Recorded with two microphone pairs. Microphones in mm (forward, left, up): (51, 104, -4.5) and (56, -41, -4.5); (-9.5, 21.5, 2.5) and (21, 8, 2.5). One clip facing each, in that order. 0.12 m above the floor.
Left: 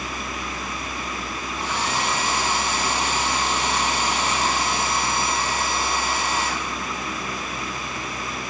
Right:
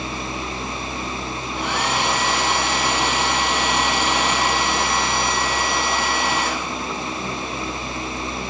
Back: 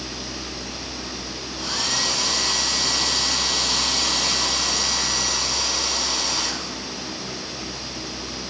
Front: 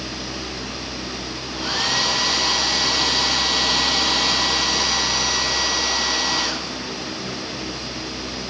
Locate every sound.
1.5 s a hair dryer: 90° right, 3.5 m